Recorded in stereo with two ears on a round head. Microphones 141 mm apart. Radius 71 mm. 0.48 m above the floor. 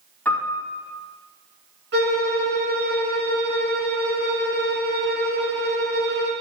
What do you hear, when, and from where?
0.2 s a piano: 10° left (ahead or behind), 4 m
1.9 s a violin: 80° right, 4.5 m